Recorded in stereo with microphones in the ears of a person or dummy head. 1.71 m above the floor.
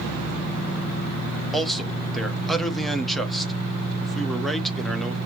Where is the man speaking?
5° left (ahead or behind), 0.8 m.